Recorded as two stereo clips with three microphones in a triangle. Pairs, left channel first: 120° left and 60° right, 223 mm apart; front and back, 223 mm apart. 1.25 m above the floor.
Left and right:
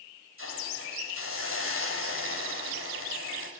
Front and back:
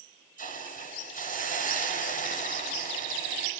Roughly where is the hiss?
Ahead right.